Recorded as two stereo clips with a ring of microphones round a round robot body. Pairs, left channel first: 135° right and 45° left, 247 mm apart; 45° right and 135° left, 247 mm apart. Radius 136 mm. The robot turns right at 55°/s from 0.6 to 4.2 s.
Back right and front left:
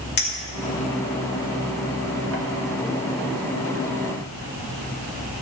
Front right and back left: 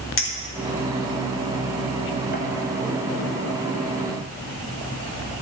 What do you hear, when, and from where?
0.2 s a clink: 85° right, 1.9 m; by 2.5 s 20° left, 1.9 m